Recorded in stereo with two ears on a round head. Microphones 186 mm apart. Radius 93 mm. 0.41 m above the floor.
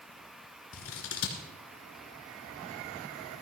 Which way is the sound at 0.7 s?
70° left (ahead or behind).